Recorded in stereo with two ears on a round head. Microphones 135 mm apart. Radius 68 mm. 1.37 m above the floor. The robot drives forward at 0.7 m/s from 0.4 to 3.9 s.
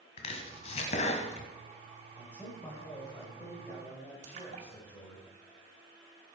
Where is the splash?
55° right (ahead or behind), 2.5 m.